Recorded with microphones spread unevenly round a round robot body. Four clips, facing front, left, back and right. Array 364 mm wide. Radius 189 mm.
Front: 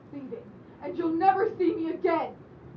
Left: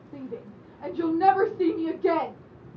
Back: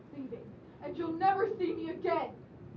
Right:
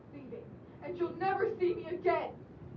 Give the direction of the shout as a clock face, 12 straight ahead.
10 o'clock.